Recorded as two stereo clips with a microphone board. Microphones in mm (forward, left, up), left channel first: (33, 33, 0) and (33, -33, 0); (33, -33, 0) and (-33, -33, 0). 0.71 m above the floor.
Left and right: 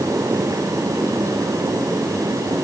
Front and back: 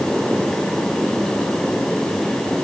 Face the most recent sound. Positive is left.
No sound to turn to.